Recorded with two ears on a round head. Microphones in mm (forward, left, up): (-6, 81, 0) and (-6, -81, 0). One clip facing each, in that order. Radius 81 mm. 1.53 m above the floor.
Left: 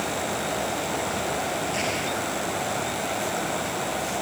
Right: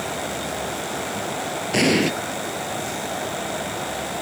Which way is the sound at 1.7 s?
75° right (ahead or behind).